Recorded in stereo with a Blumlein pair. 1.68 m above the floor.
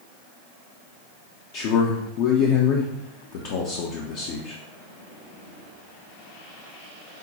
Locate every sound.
1.5 s a man speaking: 45° left, 0.6 m